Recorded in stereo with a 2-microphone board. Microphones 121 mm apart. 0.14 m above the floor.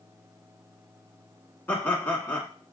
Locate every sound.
1.7 s laughter: 15° left (ahead or behind), 1.1 m